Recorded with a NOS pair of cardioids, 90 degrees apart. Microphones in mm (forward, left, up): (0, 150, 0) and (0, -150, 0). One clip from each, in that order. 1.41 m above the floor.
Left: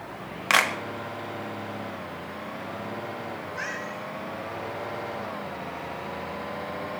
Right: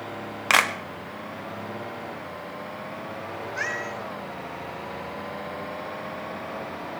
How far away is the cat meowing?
About 5.5 m.